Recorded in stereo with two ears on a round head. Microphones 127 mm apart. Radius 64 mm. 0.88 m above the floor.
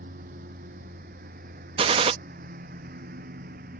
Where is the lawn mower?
65° right (ahead or behind).